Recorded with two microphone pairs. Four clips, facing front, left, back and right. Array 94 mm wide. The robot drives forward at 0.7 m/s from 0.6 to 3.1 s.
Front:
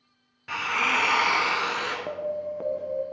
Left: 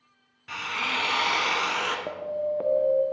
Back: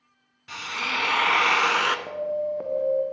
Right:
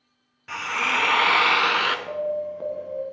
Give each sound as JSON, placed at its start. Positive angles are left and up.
{"t": 0.5, "sound": "a drill", "azimuth_deg": -25, "distance_m": 0.6}
{"t": 2.1, "sound": "an alarm", "azimuth_deg": 50, "distance_m": 0.8}